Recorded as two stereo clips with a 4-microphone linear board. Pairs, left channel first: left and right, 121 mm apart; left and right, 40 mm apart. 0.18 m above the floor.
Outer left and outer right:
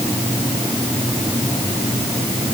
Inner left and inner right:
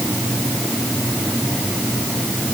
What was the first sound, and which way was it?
Only background noise.